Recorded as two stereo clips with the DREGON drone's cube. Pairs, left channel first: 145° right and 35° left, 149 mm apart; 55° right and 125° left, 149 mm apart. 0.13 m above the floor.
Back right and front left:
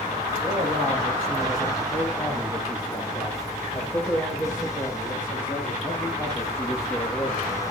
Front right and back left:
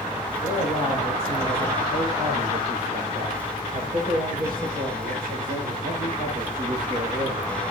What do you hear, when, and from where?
0.4 s a man speaking: 110° left, 7.5 m; by 7.5 s 145° left, 5 m